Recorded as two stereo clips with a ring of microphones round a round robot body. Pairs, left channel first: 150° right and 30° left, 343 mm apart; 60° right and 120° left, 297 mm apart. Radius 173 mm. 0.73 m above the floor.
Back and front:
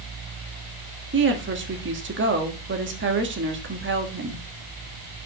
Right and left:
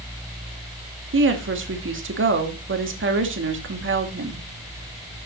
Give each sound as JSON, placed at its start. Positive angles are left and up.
{"t": 1.1, "sound": "a woman speaking", "azimuth_deg": 80, "distance_m": 1.6}